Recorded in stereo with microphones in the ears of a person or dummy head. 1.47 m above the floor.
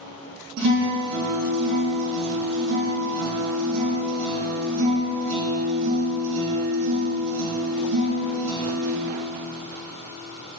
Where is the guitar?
55° right (ahead or behind), 2.5 m.